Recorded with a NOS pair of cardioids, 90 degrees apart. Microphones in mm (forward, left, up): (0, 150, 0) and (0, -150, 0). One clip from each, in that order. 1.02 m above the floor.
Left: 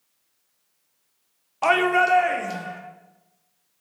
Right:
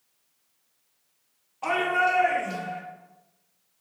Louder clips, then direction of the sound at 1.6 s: Left 5 dB; 55° left.